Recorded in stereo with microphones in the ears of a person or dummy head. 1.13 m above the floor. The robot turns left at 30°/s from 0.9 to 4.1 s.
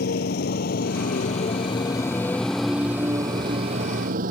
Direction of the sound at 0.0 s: 55° left (ahead or behind).